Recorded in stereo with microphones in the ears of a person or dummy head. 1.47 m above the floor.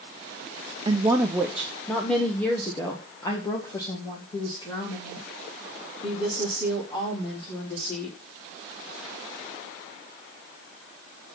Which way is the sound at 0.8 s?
25° right (ahead or behind).